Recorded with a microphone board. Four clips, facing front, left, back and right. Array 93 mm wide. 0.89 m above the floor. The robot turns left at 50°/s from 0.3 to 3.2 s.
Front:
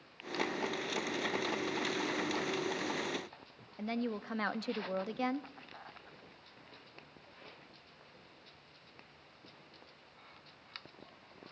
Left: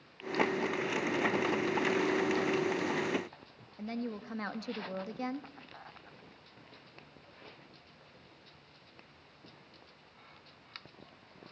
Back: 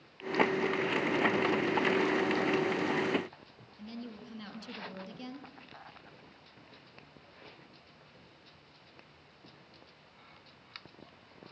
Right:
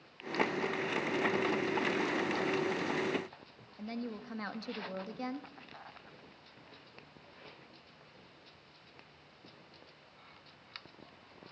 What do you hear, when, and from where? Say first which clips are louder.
3.8 s a woman speaking: left 2 dB, front 8 dB; 5° left, 1.3 m